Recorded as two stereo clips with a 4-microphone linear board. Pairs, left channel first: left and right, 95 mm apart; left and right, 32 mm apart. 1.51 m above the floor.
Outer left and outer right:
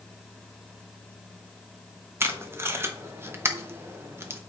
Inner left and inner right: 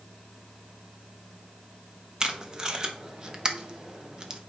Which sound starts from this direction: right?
Tape being pulled, at 2.2 s.